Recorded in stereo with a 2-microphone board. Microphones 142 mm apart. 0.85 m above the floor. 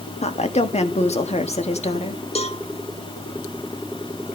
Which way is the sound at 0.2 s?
50° left (ahead or behind).